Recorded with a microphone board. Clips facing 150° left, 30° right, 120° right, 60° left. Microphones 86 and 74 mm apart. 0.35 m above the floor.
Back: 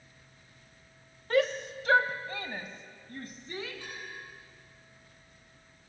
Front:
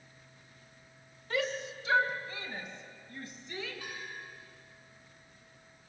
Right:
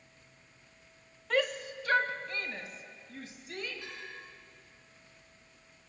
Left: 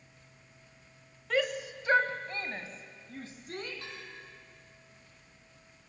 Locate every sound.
1.3 s a shout: 150° left, 1.6 m; by 3.7 s 100° left, 3.5 m
3.8 s a bell: 50° left, 9.5 m